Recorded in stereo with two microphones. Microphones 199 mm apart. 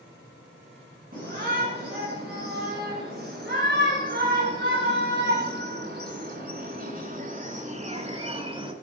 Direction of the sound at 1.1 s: 50° right (ahead or behind).